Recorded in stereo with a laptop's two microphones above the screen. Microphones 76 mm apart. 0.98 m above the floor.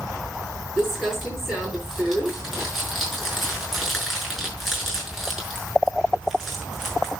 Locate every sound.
0.8 s crumpling: 5° right (ahead or behind), 5.5 m